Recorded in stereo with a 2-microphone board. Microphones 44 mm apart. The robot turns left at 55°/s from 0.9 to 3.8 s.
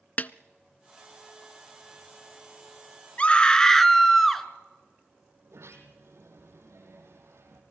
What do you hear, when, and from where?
0.2 s a snare drum: 40° left (ahead or behind), 0.5 m
3.2 s a scream: 45° left, 1.7 m; by 4.5 s 10° left, 1.7 m
5.4 s a sliding door: 75° right (ahead or behind), 4 m